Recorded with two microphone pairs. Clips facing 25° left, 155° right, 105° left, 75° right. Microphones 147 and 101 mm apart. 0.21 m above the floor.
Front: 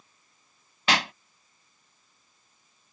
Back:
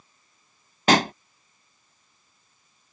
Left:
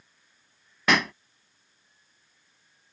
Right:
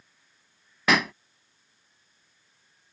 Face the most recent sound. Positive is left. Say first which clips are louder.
# back 8 dB, even
turn(degrees=-165)